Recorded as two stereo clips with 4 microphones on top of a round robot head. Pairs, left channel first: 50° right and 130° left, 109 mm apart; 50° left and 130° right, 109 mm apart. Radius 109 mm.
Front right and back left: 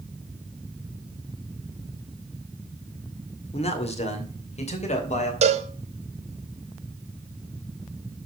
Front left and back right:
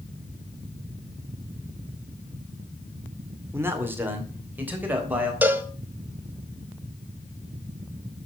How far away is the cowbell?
About 1.2 m.